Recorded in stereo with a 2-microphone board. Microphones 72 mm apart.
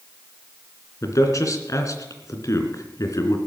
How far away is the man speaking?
About 3 m.